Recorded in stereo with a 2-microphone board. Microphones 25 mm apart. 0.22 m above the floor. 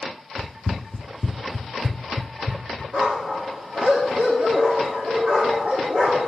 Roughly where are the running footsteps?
Left.